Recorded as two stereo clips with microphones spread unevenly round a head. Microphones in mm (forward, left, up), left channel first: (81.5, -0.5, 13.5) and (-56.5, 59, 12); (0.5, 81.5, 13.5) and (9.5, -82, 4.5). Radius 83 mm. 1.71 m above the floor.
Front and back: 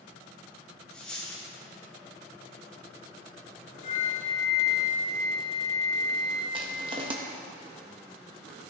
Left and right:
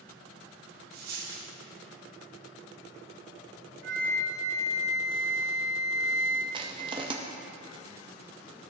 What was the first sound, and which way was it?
A dropped coin, 105° right.